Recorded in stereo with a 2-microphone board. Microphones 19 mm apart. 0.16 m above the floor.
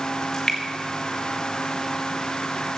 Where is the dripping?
35° left (ahead or behind), 2 m.